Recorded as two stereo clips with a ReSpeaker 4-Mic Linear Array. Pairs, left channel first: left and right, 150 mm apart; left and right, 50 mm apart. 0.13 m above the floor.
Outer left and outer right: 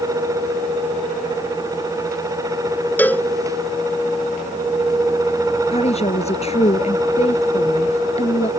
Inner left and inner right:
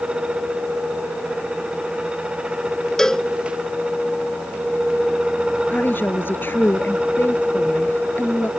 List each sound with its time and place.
3.0 s a cowbell: 10° left (ahead or behind)
5.7 s a woman speaking: 45° left (ahead or behind)